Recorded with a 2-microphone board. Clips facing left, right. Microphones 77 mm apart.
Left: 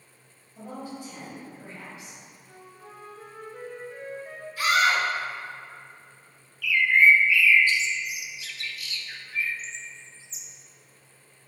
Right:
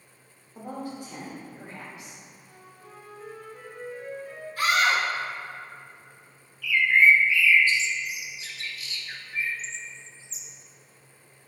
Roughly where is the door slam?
No door slam in this recording.